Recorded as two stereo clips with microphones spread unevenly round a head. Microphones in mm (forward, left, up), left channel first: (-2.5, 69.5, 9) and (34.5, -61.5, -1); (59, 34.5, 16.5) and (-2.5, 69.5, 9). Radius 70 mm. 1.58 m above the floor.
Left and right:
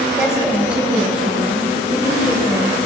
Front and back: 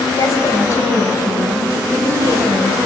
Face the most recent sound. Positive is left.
turn(degrees=10)